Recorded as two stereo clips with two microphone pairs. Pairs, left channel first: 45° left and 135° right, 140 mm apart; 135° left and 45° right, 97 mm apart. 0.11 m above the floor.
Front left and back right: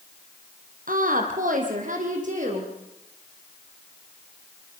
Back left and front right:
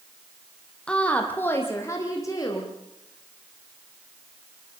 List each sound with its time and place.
0.9 s a woman speaking: 140° right, 3 m; by 2.7 s 170° right, 4.5 m